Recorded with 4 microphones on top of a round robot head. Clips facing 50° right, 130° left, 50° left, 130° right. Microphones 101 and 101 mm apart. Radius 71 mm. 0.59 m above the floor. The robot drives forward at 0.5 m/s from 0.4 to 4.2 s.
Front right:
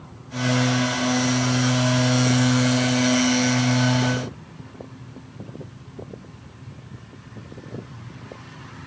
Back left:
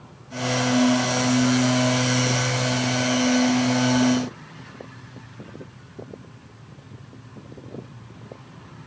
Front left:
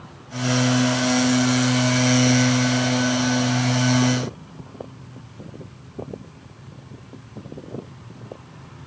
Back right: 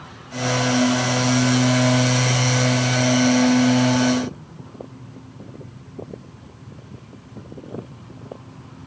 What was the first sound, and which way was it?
Only background noise.